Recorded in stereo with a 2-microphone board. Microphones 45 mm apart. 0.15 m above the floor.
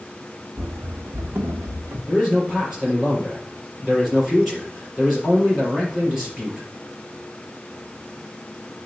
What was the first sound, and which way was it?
Running footsteps, 55° right (ahead or behind).